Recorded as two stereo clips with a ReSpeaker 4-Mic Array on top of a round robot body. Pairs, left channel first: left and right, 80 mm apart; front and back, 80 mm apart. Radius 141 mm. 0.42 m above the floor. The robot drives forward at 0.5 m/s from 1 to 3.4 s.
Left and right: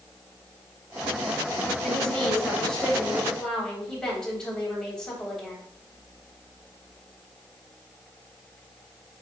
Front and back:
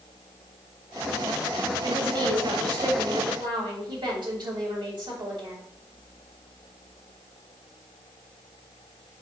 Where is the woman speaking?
170° left, 2.5 m.